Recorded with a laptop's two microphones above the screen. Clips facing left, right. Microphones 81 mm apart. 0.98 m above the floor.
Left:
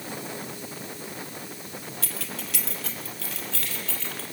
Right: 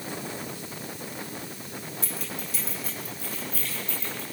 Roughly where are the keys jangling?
Left.